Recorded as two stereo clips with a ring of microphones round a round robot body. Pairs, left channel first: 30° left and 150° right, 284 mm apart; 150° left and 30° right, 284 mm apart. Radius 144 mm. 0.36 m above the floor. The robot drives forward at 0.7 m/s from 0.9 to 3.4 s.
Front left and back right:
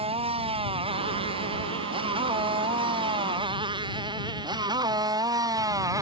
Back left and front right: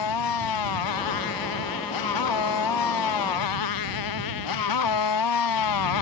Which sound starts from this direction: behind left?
A motorcycle, at 0.0 s.